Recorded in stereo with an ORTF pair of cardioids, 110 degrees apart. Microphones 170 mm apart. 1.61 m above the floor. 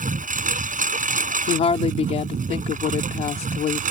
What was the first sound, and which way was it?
A lawn mower, 55° right.